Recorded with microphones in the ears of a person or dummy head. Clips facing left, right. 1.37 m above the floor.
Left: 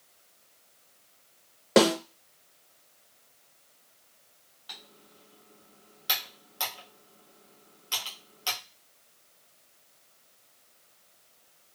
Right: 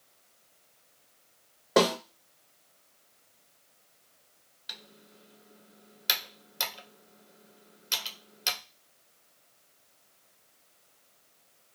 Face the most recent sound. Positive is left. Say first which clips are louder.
# even
turn(degrees=-25)  # may be behind; listen again after turning